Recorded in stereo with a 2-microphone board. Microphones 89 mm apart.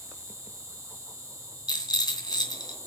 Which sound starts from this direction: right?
An insect, at 0.0 s.